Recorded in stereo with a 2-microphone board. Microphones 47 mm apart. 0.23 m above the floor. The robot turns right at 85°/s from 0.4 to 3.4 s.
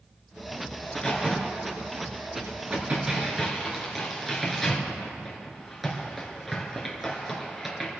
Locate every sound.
0.8 s a crack: 35° left (ahead or behind), 3 m; by 8.0 s centre (ahead or behind), 3 m